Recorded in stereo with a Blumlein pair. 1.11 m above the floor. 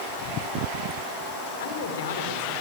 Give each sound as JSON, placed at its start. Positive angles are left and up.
{"t": 1.6, "sound": "a man speaking", "azimuth_deg": 55, "distance_m": 3.5}